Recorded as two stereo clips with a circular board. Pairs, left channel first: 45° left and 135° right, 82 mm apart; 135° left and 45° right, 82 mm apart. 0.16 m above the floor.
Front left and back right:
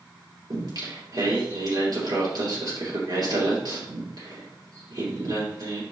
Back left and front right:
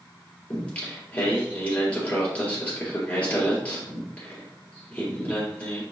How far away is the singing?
About 3.5 m.